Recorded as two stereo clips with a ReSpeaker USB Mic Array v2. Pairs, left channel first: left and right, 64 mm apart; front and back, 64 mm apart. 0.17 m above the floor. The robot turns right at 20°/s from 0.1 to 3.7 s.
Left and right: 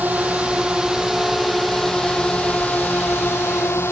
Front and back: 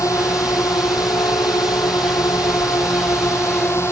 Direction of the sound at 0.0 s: 30° right.